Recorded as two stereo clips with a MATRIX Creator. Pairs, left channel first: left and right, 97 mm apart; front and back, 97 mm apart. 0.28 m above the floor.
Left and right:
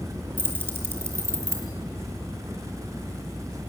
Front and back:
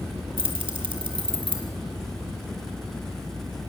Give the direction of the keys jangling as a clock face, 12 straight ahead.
5 o'clock.